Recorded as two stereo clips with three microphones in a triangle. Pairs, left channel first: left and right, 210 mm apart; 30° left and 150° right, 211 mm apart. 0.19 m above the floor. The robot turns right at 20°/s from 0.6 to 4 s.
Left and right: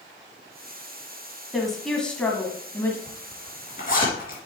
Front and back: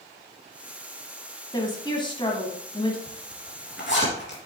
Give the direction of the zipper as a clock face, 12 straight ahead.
11 o'clock.